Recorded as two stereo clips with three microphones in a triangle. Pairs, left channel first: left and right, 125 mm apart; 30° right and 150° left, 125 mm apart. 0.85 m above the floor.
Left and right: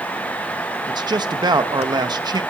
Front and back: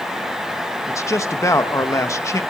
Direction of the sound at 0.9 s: 75° right.